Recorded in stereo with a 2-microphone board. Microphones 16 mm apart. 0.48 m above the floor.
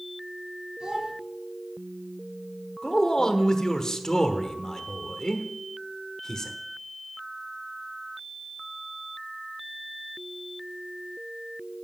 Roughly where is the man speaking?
Left.